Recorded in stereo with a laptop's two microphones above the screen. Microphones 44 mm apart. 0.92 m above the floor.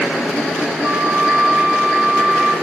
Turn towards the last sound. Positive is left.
turn(degrees=-25)  # may be behind; listen again after turning